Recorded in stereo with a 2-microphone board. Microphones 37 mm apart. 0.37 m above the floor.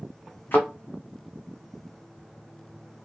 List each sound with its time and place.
0.5 s a thud: 70° left (ahead or behind), 1.2 m